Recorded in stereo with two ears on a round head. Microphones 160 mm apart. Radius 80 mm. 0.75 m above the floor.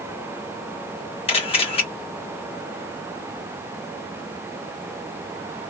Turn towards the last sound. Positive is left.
turn(degrees=35)  # may be behind; listen again after turning